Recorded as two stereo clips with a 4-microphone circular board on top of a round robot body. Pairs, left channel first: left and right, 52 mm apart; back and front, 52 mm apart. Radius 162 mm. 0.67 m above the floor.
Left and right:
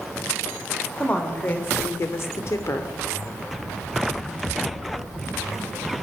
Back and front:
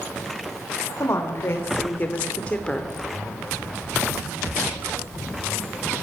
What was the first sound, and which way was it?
A woman speaking, 150° left.